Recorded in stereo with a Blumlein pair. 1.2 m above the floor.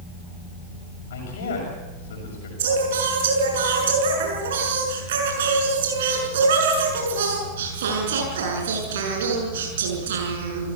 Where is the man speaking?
60° left, 7 m.